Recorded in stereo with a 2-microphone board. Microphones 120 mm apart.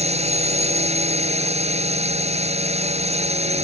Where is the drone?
65° right (ahead or behind).